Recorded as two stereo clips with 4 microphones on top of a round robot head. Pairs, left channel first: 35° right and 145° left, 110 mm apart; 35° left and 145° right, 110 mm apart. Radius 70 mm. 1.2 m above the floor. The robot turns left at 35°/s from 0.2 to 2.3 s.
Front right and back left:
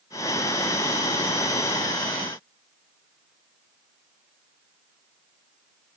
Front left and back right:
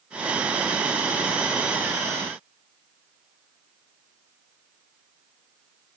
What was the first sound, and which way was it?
Only background noise.